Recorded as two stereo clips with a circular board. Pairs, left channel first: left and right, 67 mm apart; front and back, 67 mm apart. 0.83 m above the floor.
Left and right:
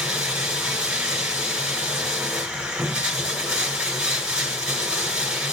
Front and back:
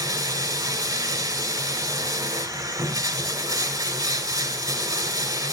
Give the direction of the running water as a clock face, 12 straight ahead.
6 o'clock.